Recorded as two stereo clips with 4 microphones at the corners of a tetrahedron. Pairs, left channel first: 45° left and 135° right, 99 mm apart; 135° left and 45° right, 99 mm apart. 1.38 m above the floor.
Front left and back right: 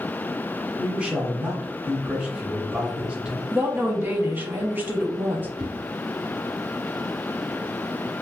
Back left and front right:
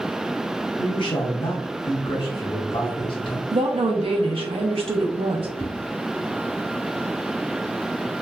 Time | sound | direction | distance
0.8 | a man speaking | 150° left | 0.7 m
3.5 | a woman speaking | 65° right | 0.7 m
5.6 | a whoosh | 150° right | 1.4 m